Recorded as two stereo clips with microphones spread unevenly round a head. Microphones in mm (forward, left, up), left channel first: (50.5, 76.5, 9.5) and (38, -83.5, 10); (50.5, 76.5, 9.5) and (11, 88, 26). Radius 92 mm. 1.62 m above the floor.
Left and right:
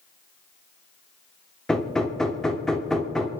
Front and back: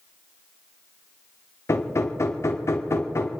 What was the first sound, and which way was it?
Hammering, straight ahead.